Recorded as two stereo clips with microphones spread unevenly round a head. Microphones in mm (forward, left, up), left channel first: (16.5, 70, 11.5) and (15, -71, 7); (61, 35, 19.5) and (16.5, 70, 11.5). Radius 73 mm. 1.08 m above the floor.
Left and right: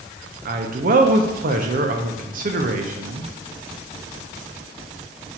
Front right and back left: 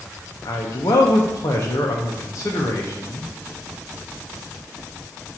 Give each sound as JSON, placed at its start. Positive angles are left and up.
{"t": 0.5, "sound": "a man speaking", "azimuth_deg": -85, "distance_m": 0.6}